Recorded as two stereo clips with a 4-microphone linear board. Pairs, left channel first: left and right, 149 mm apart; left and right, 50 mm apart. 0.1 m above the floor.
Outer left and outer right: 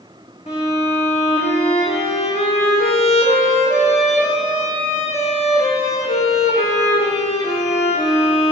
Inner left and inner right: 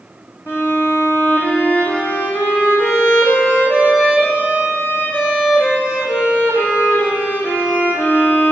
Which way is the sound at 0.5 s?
45° left (ahead or behind).